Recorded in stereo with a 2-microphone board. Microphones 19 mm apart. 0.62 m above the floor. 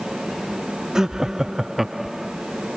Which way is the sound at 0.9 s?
35° right (ahead or behind).